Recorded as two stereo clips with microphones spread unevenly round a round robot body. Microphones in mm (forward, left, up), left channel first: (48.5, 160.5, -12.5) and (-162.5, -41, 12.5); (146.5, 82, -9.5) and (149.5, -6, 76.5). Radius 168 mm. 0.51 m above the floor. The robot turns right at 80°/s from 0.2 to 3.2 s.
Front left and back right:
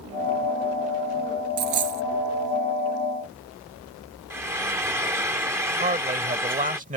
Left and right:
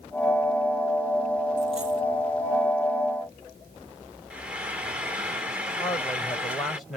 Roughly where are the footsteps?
I don't hear footsteps.